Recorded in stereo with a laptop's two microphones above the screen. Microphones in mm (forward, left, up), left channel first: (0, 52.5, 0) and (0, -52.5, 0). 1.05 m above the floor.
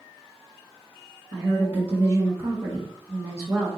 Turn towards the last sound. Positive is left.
turn(degrees=-25)  # may be behind; listen again after turning